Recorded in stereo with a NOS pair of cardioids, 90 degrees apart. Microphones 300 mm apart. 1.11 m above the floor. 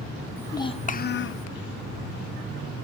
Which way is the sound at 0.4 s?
5° left.